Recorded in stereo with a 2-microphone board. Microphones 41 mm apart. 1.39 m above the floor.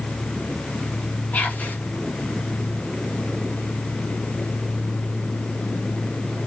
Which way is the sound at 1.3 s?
40° left (ahead or behind).